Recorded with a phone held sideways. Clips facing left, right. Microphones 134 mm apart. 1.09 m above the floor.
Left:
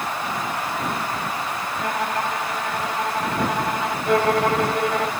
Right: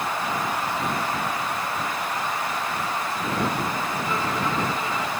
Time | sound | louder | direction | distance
1.8 | a violin | left 4 dB | 85° left | ?
4.1 | a violin | left 11 dB | 75° left (ahead or behind) | ?